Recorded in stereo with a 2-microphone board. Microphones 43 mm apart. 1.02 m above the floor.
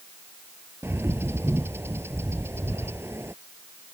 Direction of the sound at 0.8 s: 70° right (ahead or behind).